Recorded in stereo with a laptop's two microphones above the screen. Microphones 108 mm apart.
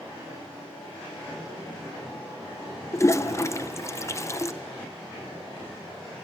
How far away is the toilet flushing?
About 0.6 m.